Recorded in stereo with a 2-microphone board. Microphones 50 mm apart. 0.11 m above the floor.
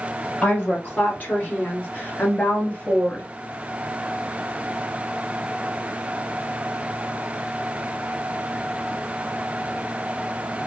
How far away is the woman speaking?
About 2.5 m.